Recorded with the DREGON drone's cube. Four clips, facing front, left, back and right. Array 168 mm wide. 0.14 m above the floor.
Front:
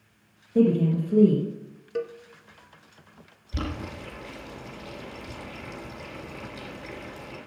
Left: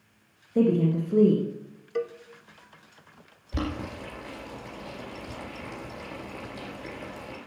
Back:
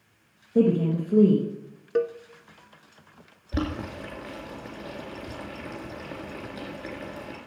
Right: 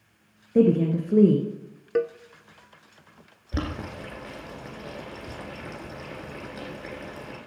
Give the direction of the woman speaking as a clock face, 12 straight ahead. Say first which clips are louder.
Right 3 dB, even; 3 o'clock.